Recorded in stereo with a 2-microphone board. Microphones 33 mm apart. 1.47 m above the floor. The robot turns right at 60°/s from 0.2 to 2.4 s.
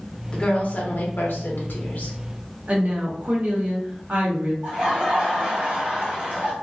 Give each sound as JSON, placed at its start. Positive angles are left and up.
{"t": 0.3, "sound": "a woman speaking", "azimuth_deg": 30, "distance_m": 0.8}
{"t": 2.7, "sound": "a woman speaking", "side_deg": -45, "distance_m": 1.0}
{"t": 4.6, "sound": "laughter", "side_deg": -35, "distance_m": 1.5}